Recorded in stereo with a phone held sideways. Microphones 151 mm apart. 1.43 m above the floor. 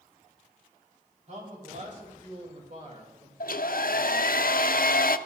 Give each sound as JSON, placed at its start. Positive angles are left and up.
{"t": 1.3, "sound": "a man speaking", "side_deg": -55, "distance_m": 4.5}
{"t": 3.4, "sound": "a hair dryer", "side_deg": 70, "distance_m": 0.5}